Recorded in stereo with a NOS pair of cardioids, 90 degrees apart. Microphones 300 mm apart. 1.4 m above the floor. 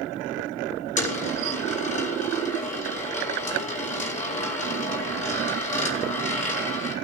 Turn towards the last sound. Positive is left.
turn(degrees=25)